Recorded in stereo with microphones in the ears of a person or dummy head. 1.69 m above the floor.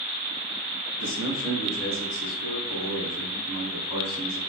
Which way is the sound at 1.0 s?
70° left (ahead or behind).